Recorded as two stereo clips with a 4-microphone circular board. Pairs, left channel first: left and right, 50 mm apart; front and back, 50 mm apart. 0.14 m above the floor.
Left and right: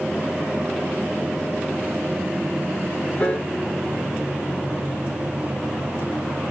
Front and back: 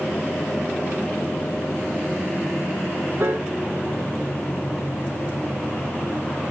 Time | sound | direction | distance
3.2 | a piano | 150° left | 0.6 m